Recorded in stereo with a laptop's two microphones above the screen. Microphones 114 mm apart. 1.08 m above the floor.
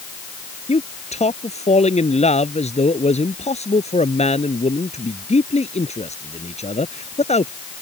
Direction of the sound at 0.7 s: 70° left (ahead or behind).